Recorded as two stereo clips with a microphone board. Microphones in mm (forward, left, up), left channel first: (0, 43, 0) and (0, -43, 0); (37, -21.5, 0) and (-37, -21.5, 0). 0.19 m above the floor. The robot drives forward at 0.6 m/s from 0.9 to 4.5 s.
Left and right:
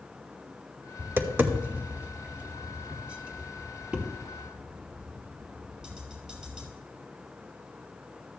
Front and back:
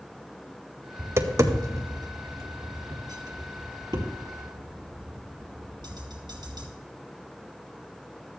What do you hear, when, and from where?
1.0 s tapping: 135° right, 0.9 m; by 6.7 s 170° right, 2.5 m